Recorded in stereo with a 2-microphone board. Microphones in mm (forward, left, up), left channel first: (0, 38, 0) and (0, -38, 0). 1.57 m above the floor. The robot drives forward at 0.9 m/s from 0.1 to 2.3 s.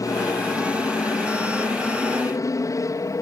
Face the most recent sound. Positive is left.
turn(degrees=45)  # may be behind; listen again after turning